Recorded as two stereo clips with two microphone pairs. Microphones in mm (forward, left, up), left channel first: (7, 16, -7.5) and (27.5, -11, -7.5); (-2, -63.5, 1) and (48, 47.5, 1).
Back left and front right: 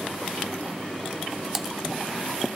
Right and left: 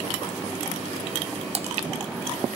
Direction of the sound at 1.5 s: 25° left.